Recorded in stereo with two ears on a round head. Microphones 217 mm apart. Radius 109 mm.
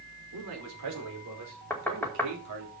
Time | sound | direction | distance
0.3 | a man speaking | 75° right (ahead or behind) | 5 m
1.7 | knocking | 10° left (ahead or behind) | 1.8 m